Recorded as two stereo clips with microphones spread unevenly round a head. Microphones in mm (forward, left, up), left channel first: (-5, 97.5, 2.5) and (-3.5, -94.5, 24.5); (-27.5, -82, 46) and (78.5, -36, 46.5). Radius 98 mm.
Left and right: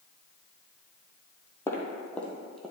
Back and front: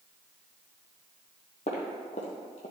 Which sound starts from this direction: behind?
Footsteps, at 1.7 s.